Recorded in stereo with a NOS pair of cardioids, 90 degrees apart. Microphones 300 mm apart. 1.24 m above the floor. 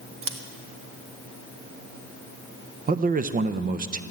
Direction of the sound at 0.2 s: 45° right.